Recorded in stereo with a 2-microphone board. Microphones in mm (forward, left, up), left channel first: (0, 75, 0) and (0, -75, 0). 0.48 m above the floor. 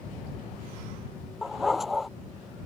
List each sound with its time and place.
1.4 s a dog barking: centre (ahead or behind)